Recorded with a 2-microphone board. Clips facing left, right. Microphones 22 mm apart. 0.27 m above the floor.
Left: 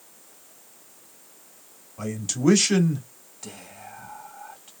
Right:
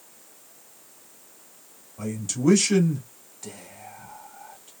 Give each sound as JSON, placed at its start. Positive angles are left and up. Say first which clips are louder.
{"t": 2.0, "sound": "a man speaking", "louder": "left 1 dB", "side_deg": 30, "distance_m": 1.1}
{"t": 3.4, "sound": "whispering", "louder": "even", "side_deg": 10, "distance_m": 1.8}